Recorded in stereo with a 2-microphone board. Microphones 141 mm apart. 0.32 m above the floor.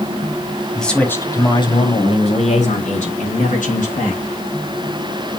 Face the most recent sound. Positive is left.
turn(degrees=75)  # may be behind; listen again after turning